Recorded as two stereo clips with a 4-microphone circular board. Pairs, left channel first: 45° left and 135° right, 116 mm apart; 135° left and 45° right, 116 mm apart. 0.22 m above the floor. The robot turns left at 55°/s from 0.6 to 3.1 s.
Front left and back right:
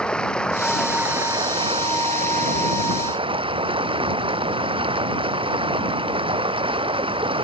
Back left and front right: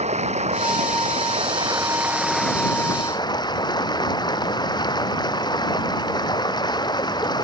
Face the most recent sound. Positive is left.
turn(degrees=-175)